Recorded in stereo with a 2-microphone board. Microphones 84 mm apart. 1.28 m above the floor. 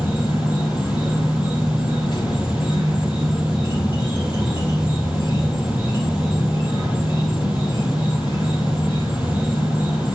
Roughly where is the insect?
Left.